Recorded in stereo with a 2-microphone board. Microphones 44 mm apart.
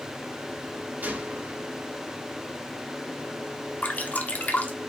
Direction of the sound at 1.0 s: 40° right (ahead or behind).